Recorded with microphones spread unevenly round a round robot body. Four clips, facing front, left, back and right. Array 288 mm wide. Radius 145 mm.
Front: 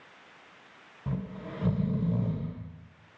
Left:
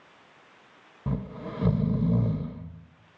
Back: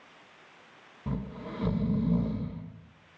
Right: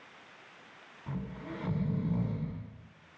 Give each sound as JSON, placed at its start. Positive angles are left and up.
{"t": 1.1, "sound": "snoring", "azimuth_deg": 95, "distance_m": 0.9}